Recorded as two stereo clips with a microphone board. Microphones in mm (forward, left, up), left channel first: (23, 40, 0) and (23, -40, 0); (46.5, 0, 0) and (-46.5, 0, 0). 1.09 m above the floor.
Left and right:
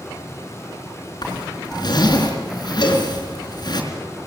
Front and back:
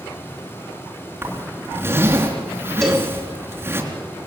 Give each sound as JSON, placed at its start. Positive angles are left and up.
{"t": 1.2, "sound": "a zipper", "azimuth_deg": 115, "distance_m": 4.0}
{"t": 2.8, "sound": "a cowbell", "azimuth_deg": 85, "distance_m": 4.0}